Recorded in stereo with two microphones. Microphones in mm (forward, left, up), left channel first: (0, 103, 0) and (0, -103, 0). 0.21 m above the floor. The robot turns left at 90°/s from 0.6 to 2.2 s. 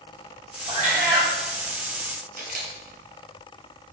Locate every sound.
0.7 s a cat meowing: 30° right, 1.1 m; by 1.3 s 85° right, 1.1 m
2.4 s a camera shutter: 50° right (ahead or behind), 0.9 m